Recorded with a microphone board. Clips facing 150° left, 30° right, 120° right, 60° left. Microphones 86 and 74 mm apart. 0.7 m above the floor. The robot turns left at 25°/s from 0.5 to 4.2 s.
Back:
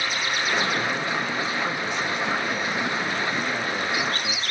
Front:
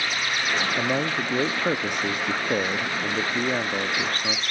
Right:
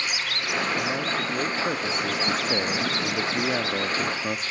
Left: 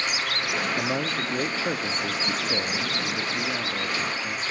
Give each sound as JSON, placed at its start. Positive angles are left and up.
{"t": 0.8, "sound": "a man speaking", "azimuth_deg": -5, "distance_m": 0.8}